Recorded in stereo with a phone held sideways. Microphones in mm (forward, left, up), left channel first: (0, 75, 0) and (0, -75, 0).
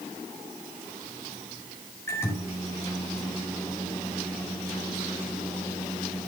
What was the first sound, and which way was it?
A microwave, 15° left (ahead or behind).